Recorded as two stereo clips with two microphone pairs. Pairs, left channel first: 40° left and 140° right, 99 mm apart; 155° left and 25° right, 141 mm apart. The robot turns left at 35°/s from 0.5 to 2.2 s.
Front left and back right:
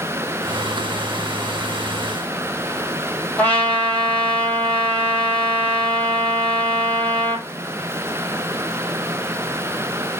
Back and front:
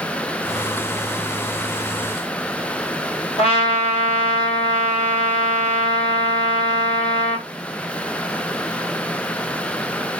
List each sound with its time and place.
3.4 s a trumpet: 120° left, 1.6 m